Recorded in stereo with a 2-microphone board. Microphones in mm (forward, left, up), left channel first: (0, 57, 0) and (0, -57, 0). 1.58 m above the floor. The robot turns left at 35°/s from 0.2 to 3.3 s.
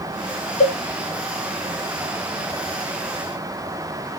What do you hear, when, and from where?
0.6 s a cowbell: 80° left, 1.0 m; by 0.8 s 70° left (ahead or behind), 1.0 m